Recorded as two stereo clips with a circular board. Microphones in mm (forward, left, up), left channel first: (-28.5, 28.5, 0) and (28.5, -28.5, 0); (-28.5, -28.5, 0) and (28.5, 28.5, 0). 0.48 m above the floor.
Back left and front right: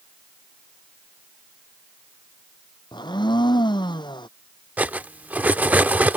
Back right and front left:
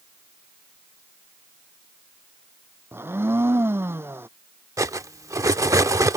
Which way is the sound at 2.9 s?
105° left.